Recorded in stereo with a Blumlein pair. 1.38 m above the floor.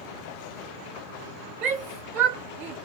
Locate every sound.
1.6 s a shout: 35° right, 0.8 m